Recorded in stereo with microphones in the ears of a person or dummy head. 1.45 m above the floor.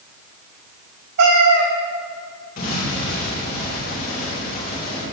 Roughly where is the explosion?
Left.